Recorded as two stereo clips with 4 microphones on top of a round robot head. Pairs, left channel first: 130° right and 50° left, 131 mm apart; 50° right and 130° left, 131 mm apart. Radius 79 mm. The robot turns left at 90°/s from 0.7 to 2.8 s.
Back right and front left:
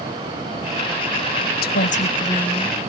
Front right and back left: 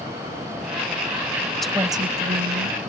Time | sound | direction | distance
1.6 | a woman speaking | 135° right | ?